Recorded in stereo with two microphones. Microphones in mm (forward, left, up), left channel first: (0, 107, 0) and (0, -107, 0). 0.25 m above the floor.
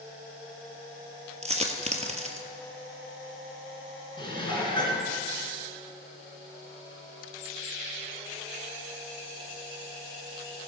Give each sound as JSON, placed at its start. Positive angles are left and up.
{"t": 1.4, "sound": "a dropped coin", "side_deg": -30, "distance_m": 1.3}
{"t": 4.2, "sound": "dishes clattering", "side_deg": 20, "distance_m": 2.0}